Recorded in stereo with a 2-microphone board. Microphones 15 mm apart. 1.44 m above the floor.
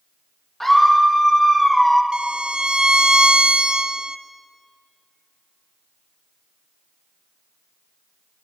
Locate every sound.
0.6 s a scream: 15° left (ahead or behind), 2 m; by 2.0 s centre (ahead or behind), 1.4 m
2.1 s a violin: 65° right (ahead or behind), 0.5 m